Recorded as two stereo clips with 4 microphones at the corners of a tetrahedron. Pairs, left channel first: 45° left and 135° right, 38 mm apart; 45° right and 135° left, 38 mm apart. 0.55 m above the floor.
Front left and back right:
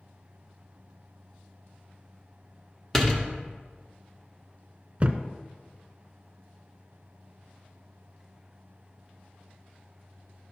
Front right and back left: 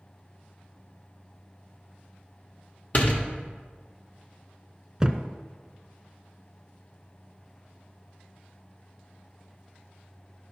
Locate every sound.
2.9 s a door slam: 30° right, 1.0 m
5.0 s a thud: 160° right, 0.6 m